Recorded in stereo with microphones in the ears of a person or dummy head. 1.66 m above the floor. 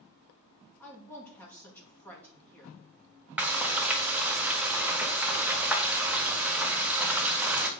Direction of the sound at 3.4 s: Centre (ahead or behind).